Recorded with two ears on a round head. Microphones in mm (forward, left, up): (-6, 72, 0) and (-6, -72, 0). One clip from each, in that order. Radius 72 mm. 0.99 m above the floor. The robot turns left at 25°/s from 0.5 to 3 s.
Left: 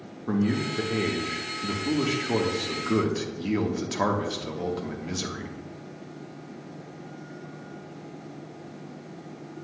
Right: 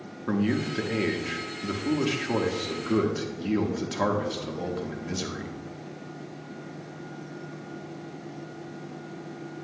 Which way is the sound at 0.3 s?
125° right.